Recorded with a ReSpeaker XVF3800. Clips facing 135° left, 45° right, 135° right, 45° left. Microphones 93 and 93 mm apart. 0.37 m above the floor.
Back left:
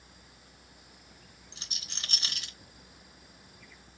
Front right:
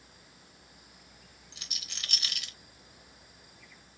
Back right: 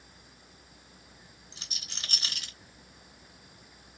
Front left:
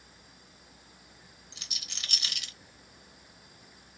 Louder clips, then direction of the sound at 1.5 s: Even, back right 1 dB; 175° right.